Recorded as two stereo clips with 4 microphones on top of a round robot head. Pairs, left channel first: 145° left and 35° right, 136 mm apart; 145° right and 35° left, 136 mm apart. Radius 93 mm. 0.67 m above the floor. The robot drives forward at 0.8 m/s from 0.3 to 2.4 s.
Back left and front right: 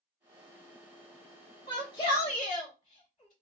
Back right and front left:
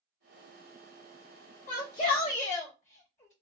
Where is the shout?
155° right, 1.7 m; by 3.3 s 165° right, 2.5 m.